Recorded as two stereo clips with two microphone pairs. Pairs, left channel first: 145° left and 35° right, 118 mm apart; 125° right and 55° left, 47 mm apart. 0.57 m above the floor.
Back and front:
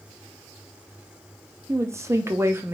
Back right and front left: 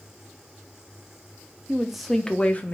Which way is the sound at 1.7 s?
Straight ahead.